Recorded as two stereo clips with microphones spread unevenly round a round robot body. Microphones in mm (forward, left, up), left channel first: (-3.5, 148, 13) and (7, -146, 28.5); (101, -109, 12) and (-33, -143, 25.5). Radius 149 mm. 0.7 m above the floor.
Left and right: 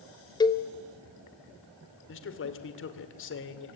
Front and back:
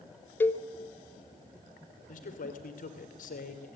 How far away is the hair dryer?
No hair dryer in this recording.